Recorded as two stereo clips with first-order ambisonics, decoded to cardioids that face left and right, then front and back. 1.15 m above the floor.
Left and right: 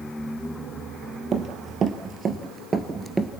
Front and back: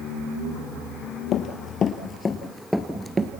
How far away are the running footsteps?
About 1.7 m.